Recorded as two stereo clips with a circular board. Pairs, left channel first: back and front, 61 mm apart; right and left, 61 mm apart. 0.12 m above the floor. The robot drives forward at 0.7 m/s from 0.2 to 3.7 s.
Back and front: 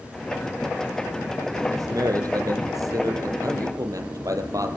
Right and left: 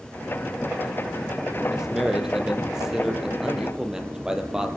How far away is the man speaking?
About 4.5 m.